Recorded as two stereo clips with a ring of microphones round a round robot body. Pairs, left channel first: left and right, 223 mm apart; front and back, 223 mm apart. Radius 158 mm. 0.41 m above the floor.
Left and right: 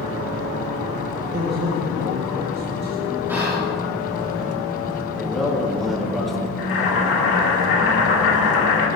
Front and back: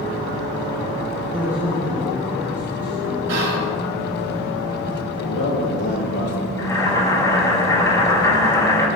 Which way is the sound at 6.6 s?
75° left.